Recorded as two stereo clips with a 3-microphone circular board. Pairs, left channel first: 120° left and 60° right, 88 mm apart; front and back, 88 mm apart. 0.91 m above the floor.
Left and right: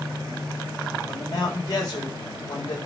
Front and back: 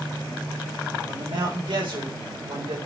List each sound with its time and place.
1.1 s a man speaking: 160° left, 5 m